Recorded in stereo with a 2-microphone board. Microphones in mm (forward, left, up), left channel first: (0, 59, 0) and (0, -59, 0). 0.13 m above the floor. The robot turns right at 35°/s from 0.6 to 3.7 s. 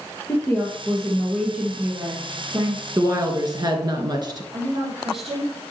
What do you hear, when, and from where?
0.3 s a woman speaking: 160° left, 2.5 m; by 2.9 s 120° right, 2.5 m
3.0 s a woman speaking: 30° right (ahead or behind), 1.4 m; by 4.4 s 40° right (ahead or behind), 1.4 m
4.5 s a woman speaking: 55° right (ahead or behind), 4.5 m